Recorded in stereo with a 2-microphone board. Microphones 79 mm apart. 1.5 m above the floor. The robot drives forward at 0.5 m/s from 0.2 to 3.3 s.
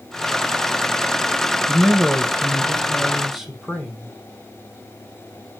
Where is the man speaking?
5° right (ahead or behind), 0.8 m.